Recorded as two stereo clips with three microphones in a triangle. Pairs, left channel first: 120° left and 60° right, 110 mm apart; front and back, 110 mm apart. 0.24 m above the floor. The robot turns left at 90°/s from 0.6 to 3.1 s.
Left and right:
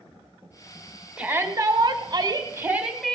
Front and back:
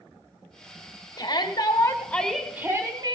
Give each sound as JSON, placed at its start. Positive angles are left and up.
{"t": 1.2, "sound": "a shout", "azimuth_deg": 15, "distance_m": 1.5}